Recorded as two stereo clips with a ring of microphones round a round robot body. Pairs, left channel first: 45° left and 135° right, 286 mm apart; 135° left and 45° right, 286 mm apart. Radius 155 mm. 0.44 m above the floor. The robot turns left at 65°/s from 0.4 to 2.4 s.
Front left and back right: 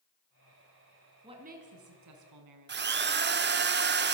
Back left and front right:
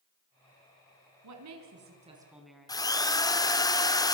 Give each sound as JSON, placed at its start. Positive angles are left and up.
{"t": 1.2, "sound": "a woman speaking", "azimuth_deg": -60, "distance_m": 4.5}
{"t": 2.7, "sound": "a drill", "azimuth_deg": -155, "distance_m": 1.6}